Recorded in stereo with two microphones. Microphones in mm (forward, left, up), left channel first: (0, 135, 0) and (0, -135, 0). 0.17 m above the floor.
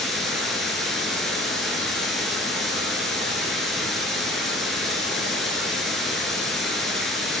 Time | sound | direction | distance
0.0 | running water | centre (ahead or behind) | 1.0 m